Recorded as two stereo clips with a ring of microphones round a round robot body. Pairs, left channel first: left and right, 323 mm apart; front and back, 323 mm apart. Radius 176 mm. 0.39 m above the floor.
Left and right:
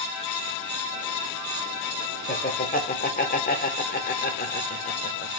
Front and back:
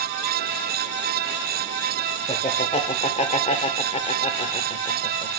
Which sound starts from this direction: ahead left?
Laughter, at 2.3 s.